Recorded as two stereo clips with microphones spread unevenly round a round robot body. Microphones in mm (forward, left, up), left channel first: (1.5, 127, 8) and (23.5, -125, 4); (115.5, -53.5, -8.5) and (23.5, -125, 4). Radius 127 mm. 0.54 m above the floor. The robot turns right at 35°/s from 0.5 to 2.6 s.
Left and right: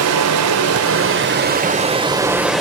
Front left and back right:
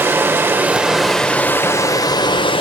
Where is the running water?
70° right, 2.0 m; by 2.6 s 5° left, 2.0 m.